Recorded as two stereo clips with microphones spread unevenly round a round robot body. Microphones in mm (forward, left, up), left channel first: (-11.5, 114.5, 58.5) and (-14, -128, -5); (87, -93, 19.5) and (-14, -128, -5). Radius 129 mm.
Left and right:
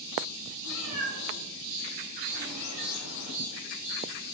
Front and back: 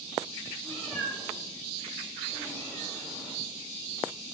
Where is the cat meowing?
115° left, 3.5 m.